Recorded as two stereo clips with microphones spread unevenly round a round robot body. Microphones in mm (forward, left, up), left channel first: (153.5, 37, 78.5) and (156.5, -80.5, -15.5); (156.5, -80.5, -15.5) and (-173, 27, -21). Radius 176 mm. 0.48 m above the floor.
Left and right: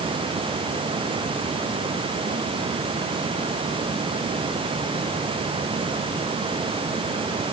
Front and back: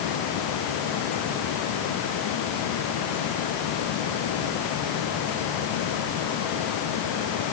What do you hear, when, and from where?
Only background noise.